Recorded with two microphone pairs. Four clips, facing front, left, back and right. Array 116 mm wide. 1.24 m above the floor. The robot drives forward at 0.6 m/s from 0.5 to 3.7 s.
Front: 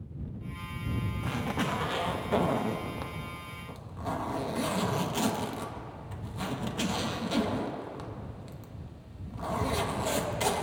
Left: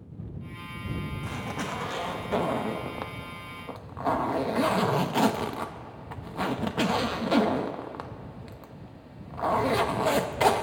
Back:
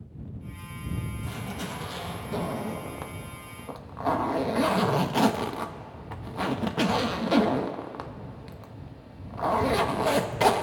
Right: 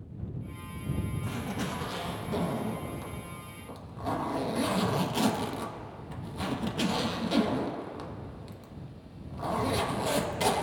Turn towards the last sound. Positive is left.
turn(degrees=135)